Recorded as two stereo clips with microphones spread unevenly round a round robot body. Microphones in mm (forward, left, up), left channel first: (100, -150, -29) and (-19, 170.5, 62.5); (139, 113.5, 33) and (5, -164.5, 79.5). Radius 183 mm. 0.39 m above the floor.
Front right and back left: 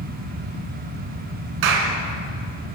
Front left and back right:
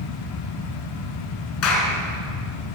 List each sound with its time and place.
1.6 s a clap: 115° left, 4.5 m